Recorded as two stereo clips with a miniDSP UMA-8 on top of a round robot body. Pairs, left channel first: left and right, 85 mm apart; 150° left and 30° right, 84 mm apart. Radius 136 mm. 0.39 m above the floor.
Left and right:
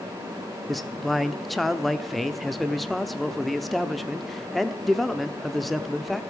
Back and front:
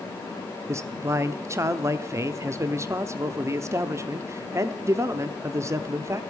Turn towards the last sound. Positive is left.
turn(degrees=0)